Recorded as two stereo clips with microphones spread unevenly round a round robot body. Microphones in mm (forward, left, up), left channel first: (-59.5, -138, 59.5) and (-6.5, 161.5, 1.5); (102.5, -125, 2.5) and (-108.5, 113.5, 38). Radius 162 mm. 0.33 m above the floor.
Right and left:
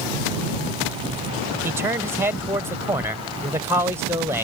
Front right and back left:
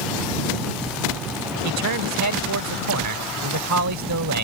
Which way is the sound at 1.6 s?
145° left.